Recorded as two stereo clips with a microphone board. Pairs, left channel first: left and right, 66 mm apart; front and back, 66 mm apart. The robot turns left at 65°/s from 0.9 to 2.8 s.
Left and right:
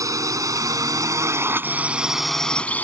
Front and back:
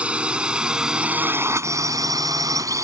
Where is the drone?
110° right; by 2.8 s 155° left.